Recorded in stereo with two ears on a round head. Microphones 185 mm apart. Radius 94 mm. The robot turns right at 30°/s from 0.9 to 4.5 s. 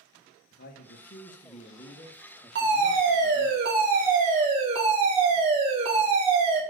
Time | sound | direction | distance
0.5 | a man speaking | 125° left | 1.2 m
2.5 | a fire alarm | 95° right | 2.5 m